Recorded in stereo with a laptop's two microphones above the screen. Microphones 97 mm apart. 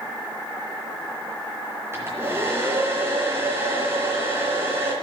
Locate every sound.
1.9 s a hair dryer: 25° right (ahead or behind), 3 m